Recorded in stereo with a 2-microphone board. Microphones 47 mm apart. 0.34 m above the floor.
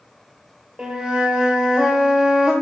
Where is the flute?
15° right (ahead or behind), 1.0 m.